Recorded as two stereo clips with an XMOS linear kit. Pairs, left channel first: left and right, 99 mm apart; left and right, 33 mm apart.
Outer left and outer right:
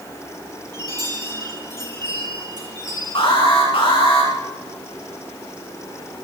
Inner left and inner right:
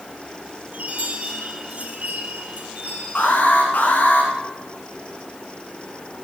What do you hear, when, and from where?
0.7 s a chime: 50° right (ahead or behind), 4 m
3.1 s an alarm: 60° left (ahead or behind), 4.5 m